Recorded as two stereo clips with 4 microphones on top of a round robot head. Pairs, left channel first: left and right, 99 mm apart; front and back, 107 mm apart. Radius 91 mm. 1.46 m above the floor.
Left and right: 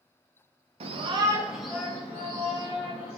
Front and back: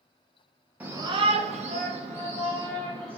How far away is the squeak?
No squeak in this recording.